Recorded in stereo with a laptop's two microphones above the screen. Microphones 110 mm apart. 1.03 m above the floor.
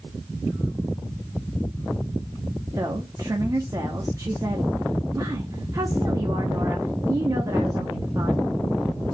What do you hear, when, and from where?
2.8 s a woman speaking: 30° right (ahead or behind), 0.7 m